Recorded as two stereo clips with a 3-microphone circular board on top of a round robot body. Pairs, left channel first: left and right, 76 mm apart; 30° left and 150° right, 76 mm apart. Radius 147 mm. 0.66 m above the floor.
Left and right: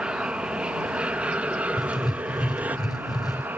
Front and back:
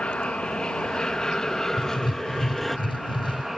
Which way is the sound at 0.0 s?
30° right.